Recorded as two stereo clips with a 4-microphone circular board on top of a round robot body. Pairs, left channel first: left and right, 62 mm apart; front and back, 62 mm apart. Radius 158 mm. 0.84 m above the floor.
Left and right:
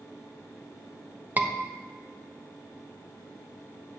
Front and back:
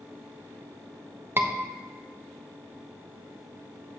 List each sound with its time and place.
1.4 s a scream: 140° right, 1.1 m